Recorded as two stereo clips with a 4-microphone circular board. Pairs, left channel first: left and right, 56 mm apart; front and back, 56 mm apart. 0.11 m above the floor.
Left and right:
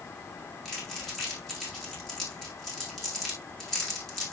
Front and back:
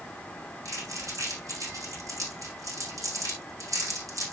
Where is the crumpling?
170° left, 7.5 m.